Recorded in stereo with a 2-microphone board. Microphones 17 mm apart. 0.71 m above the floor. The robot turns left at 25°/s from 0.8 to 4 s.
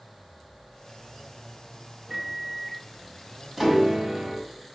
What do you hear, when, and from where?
2.1 s a microwave: 25° right (ahead or behind), 1.5 m; by 2.9 s 5° right (ahead or behind), 1.5 m
3.6 s a piano: 25° right (ahead or behind), 1.9 m; by 4.5 s 35° right (ahead or behind), 1.9 m